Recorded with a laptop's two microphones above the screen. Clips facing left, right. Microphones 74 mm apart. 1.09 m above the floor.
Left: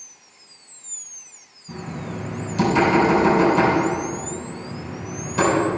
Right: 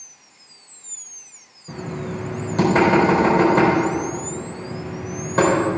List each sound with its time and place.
1.7 s knocking: 50° right (ahead or behind), 3 m